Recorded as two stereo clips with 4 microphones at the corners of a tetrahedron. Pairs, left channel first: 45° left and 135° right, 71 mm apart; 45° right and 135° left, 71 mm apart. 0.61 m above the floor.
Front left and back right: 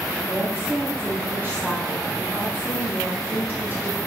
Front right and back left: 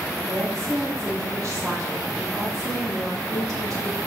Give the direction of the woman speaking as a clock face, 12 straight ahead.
6 o'clock.